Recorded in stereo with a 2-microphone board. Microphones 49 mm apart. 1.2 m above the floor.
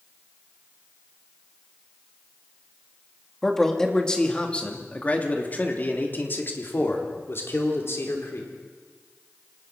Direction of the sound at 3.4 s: 5° left (ahead or behind).